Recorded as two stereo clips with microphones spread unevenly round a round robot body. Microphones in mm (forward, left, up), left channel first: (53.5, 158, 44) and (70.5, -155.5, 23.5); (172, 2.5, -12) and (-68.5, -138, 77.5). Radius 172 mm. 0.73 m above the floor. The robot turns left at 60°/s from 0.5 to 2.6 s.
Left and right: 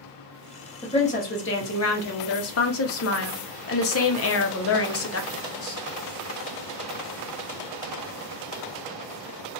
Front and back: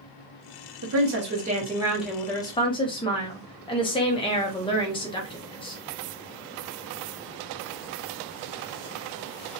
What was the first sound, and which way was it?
A woman speaking, 175° left.